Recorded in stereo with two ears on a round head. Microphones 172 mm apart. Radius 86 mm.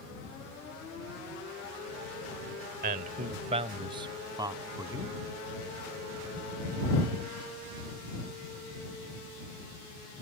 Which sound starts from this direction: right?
A man speaking, at 2.8 s.